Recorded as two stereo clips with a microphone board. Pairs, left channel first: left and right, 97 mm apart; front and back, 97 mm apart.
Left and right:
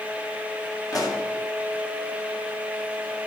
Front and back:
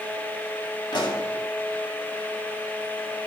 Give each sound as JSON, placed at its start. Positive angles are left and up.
{"t": 0.9, "sound": "a pop", "azimuth_deg": 40, "distance_m": 2.0}